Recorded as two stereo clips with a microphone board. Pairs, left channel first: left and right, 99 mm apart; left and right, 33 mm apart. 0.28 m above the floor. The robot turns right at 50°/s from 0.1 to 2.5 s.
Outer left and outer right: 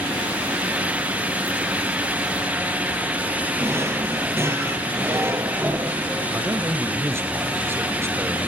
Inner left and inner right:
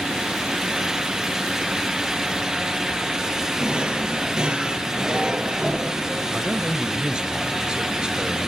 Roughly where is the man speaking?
Right.